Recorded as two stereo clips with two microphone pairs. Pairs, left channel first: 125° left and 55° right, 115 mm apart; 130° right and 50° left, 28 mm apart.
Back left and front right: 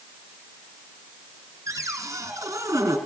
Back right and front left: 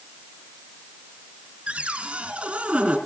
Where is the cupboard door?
15° left, 4 m.